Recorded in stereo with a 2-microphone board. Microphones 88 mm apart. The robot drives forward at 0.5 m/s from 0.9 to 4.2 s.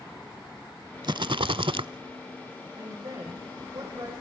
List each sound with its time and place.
1.0 s a rattle: 55° right (ahead or behind), 0.5 m; by 1.9 s 70° right (ahead or behind), 0.5 m
2.8 s a woman speaking: 35° right (ahead or behind), 9 m; by 4.1 s 40° right (ahead or behind), 8.5 m